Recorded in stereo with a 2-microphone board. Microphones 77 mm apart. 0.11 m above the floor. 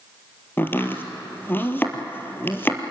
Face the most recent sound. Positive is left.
turn(degrees=25)  # may be behind; listen again after turning